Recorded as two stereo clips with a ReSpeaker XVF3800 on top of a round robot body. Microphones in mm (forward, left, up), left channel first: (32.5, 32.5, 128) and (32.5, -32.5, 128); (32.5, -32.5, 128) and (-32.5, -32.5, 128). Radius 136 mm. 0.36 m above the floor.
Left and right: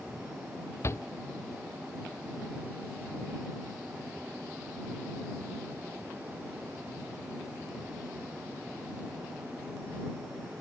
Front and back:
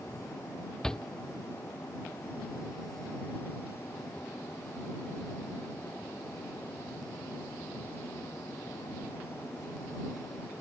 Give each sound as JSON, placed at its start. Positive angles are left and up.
{"t": 0.8, "sound": "a shout", "azimuth_deg": 80}